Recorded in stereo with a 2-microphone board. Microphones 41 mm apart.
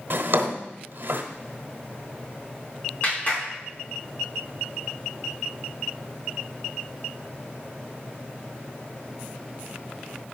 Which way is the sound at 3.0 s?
45° left (ahead or behind).